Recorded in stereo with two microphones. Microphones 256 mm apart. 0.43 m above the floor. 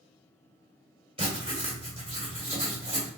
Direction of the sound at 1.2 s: 20° right (ahead or behind).